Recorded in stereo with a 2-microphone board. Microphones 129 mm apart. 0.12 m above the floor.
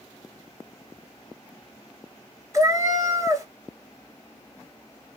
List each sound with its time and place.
2.5 s a cat meowing: 25° right (ahead or behind), 0.7 m